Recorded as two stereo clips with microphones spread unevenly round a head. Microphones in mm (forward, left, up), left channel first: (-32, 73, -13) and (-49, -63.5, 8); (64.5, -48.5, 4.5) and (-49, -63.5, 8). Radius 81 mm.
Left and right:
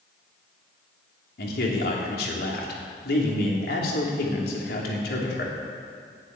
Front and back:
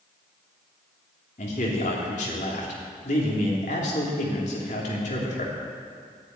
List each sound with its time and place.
1.4 s a man speaking: 50° left, 3 m